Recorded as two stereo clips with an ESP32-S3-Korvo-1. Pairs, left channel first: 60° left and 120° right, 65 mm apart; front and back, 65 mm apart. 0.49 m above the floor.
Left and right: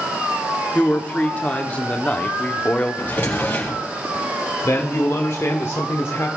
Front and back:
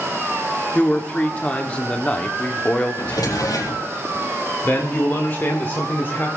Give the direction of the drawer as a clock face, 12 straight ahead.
12 o'clock.